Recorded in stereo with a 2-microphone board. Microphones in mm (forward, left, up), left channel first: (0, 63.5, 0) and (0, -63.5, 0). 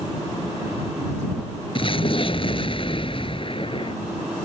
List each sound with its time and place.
1.8 s an explosion: 45° left (ahead or behind)